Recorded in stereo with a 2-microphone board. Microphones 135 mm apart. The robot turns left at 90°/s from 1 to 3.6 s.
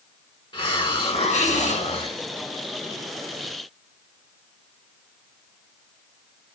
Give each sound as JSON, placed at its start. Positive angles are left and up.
{"t": 0.5, "sound": "a hiss", "azimuth_deg": 135, "distance_m": 1.5}